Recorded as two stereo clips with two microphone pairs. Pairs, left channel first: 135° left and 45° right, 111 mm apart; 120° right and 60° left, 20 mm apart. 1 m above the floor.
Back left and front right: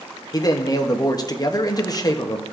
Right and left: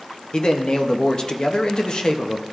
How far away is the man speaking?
About 0.8 m.